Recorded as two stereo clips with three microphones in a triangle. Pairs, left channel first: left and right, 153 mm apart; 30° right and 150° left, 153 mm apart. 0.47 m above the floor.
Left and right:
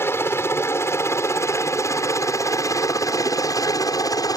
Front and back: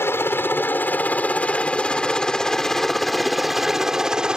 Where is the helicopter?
30° left; by 4.4 s 75° left.